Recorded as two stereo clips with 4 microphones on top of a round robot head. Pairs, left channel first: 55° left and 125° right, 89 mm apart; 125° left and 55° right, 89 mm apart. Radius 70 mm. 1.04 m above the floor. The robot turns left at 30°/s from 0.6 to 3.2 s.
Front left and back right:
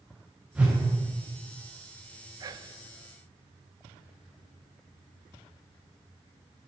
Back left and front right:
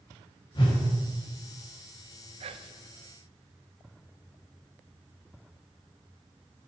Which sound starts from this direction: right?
Whispering, at 2.4 s.